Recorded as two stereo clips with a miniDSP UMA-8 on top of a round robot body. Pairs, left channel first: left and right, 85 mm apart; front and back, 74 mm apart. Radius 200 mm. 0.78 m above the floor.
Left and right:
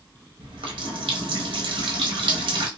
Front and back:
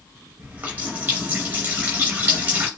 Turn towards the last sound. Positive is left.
turn(degrees=-115)